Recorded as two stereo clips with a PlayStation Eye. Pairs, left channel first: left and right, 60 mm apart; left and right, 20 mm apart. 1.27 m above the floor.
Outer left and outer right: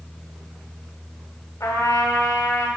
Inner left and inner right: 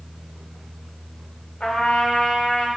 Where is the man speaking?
I don't hear a man speaking.